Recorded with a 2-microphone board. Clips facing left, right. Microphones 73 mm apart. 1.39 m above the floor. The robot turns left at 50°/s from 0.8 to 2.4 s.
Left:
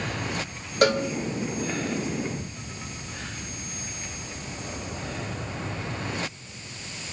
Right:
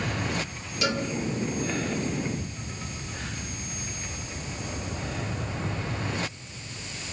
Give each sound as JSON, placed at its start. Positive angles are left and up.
{"t": 0.8, "sound": "a cowbell", "side_deg": 55, "distance_m": 1.5}